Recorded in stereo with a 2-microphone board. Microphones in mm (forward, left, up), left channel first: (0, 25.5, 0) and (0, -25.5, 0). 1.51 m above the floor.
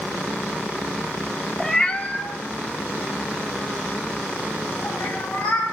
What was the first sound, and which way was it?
A cat meowing, 10° left (ahead or behind).